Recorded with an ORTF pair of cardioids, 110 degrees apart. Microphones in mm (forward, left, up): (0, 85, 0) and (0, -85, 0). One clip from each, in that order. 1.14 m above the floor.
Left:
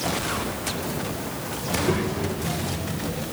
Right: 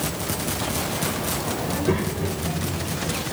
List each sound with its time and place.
1.6 s a child speaking: 15° right, 4 m; by 3.2 s 5° right, 5 m